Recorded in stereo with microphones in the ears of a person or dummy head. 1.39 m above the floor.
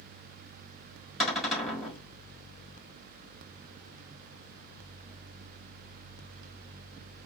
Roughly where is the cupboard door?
Centre.